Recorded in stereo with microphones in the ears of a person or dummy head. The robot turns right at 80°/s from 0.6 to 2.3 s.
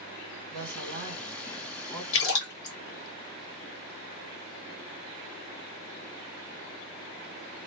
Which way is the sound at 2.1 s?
60° left (ahead or behind).